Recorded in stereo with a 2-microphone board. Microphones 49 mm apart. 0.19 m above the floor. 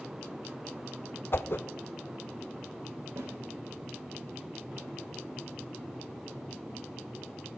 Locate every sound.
1.3 s a whoosh: 55° left (ahead or behind), 0.6 m
3.2 s a snare drum: 50° right (ahead or behind), 9 m